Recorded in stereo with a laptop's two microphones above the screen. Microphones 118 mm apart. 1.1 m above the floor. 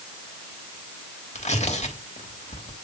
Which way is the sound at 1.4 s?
75° left (ahead or behind).